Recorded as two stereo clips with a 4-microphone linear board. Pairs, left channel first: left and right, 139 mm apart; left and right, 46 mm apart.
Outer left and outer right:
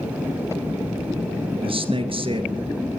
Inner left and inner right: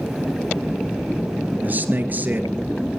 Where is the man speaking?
40° right (ahead or behind), 2 m.